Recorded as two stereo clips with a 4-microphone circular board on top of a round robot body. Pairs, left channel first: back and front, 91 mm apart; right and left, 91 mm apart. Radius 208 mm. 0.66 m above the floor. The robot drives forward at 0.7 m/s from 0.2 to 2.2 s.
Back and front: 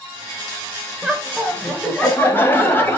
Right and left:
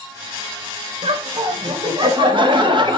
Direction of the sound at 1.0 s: 80° left.